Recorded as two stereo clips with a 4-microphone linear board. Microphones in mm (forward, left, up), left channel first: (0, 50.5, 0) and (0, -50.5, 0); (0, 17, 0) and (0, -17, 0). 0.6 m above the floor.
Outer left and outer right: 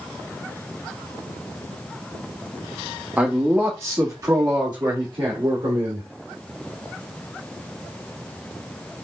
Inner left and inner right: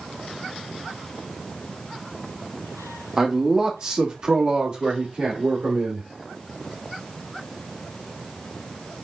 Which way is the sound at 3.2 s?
15° right (ahead or behind).